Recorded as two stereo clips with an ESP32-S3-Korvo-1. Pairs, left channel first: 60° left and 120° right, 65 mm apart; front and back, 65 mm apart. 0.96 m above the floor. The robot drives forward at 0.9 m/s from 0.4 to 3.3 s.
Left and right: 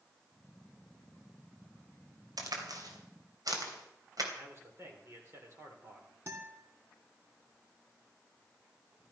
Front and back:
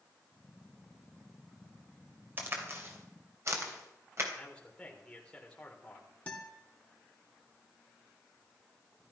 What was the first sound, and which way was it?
A crack, 125° right.